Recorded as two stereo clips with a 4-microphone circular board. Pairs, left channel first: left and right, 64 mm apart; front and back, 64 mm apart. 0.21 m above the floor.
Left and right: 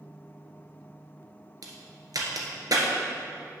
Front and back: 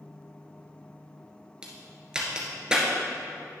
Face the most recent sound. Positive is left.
turn(degrees=-105)